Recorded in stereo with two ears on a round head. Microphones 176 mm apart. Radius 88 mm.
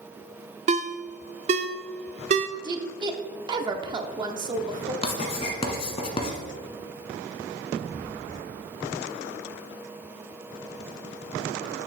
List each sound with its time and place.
0.7 s a ringtone: 35° right (ahead or behind), 0.5 m
2.6 s a woman speaking: 25° right (ahead or behind), 0.9 m
5.0 s writing: 35° left (ahead or behind), 1.3 m